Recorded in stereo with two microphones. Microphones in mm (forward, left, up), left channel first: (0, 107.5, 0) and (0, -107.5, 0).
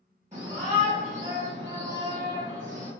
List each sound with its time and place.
0.3 s a shout: 35° right (ahead or behind), 1.5 m; by 2.9 s 15° right (ahead or behind), 1.7 m